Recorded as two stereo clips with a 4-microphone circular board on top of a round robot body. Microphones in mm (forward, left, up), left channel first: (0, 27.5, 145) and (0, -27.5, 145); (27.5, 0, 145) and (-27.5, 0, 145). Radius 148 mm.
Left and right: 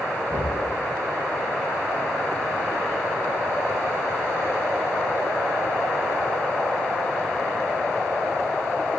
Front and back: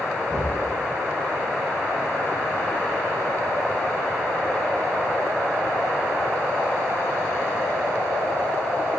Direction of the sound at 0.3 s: 35° right.